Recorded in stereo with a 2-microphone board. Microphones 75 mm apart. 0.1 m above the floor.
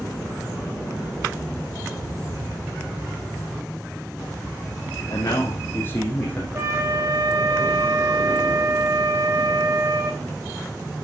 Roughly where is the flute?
Right.